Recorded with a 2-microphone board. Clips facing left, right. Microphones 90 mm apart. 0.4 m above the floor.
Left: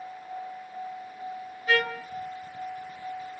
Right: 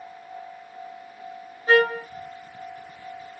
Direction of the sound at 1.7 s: 30° right (ahead or behind).